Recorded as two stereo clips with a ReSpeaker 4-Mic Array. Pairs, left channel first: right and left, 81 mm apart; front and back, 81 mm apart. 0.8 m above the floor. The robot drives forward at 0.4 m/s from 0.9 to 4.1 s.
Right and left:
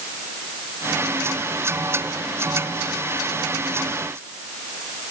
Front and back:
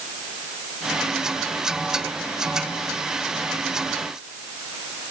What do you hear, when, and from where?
Only background noise.